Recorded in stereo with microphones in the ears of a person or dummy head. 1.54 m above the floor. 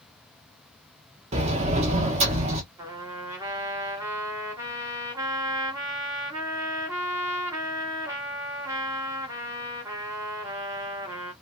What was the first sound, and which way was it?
A sliding door, 30° right (ahead or behind).